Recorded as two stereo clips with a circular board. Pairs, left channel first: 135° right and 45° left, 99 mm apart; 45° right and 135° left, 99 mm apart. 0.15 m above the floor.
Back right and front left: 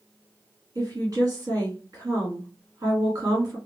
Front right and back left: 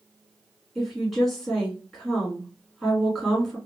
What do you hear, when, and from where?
0.8 s a woman speaking: 40° left, 1.9 m